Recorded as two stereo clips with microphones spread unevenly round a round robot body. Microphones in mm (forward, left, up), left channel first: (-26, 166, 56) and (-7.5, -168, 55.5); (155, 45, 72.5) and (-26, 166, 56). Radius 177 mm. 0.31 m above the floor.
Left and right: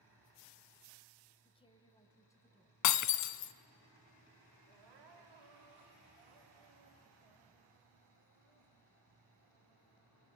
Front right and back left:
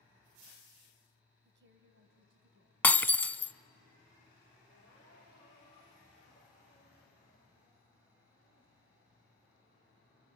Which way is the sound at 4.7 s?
100° right.